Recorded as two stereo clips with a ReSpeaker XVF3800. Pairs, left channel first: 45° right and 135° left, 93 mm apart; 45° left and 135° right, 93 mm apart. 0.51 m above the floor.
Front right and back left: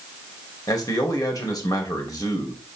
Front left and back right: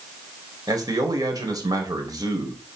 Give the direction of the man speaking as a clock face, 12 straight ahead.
3 o'clock.